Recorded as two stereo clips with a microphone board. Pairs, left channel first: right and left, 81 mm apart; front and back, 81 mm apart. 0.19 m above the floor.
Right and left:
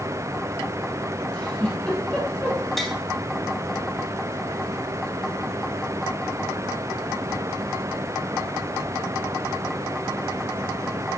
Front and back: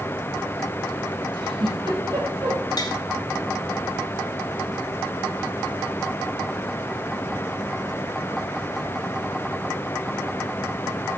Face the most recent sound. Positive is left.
turn(degrees=0)